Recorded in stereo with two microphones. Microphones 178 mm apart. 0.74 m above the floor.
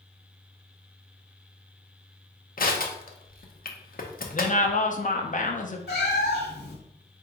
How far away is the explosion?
I don't hear an explosion.